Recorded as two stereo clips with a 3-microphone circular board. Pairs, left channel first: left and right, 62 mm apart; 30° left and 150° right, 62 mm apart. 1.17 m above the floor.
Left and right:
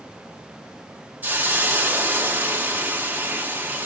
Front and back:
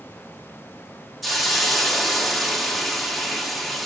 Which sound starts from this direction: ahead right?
A hiss, at 1.2 s.